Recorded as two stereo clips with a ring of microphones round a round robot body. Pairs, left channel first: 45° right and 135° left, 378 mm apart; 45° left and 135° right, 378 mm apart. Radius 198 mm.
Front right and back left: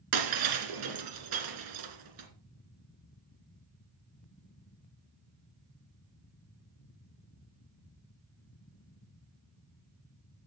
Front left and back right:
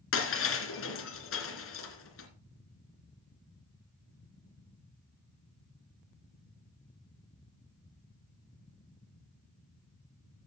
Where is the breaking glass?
100° left, 3 m.